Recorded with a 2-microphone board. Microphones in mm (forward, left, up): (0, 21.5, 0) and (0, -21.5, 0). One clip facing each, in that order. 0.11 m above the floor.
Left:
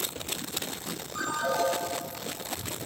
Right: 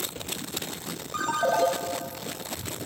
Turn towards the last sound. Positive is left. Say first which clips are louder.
# right 4 dB
turn(degrees=-60)  # may be behind; listen again after turning